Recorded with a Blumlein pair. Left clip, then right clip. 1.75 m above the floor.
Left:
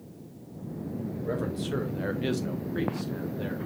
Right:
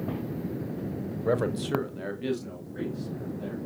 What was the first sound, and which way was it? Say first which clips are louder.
A man speaking: right 6 dB; 30° right.